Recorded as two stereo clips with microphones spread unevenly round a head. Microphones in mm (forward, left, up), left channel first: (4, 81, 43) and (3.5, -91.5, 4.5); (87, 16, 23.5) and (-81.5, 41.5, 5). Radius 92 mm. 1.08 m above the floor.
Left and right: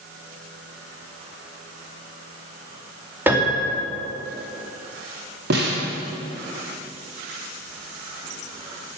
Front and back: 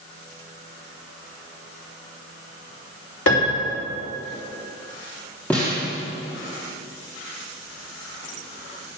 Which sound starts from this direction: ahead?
A piano, at 3.3 s.